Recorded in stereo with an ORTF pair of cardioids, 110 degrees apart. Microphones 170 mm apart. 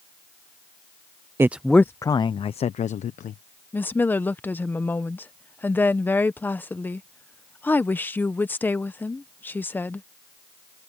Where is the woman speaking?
10° left.